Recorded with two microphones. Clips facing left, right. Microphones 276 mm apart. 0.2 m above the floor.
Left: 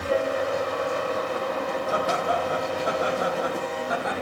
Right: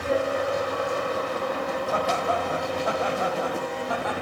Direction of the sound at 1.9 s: 15° left (ahead or behind).